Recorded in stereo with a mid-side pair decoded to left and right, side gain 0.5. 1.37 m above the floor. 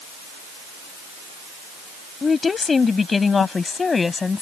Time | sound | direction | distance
2.2 | a woman speaking | 30° left | ?